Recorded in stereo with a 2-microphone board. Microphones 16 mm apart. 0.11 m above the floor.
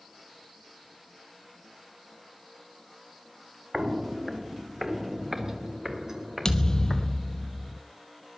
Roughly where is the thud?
Left.